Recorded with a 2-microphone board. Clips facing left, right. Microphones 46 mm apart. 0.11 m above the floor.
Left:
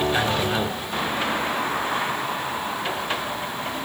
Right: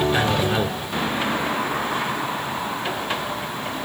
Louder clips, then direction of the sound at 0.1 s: Right 2 dB; 5° right (ahead or behind).